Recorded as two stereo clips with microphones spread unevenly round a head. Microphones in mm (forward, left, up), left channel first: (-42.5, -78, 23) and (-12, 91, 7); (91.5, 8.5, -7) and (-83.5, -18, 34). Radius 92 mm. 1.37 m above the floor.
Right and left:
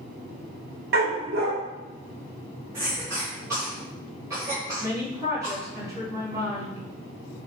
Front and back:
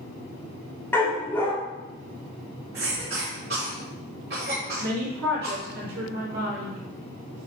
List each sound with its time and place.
0.9 s a dog barking: 100° left, 1.2 m
2.7 s a cough: 155° left, 3 m
4.8 s a woman speaking: 150° left, 3.5 m